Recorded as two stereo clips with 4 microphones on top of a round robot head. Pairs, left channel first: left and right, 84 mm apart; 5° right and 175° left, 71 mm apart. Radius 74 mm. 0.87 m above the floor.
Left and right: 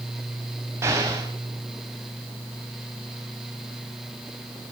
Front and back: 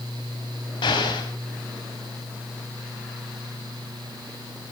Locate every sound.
0.8 s an explosion: 25° right, 4.5 m